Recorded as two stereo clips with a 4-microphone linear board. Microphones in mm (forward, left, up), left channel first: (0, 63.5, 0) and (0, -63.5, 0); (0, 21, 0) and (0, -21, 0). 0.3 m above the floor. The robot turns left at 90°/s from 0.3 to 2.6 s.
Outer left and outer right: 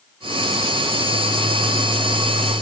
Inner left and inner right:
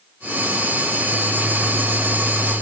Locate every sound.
Only background noise.